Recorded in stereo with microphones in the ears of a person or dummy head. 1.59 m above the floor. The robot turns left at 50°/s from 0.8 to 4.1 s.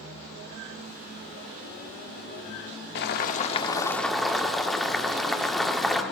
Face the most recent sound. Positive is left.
turn(degrees=0)